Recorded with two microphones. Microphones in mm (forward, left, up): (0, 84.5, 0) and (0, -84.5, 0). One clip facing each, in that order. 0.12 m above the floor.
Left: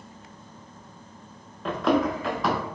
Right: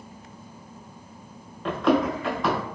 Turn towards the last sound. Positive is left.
turn(degrees=0)  # may be behind; listen again after turning